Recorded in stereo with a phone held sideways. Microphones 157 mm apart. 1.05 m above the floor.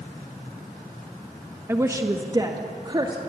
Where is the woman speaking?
15° right (ahead or behind), 1.1 m; by 3.2 s 30° right (ahead or behind), 2.5 m.